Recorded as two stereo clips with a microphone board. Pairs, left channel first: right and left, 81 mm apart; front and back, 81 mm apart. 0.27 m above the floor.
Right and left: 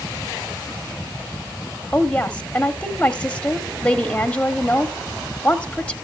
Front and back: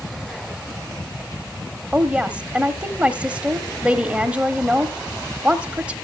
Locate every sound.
1.9 s a woman speaking: 130° right, 1.0 m